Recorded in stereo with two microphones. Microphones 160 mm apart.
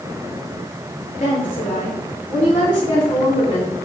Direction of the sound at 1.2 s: 60° left (ahead or behind).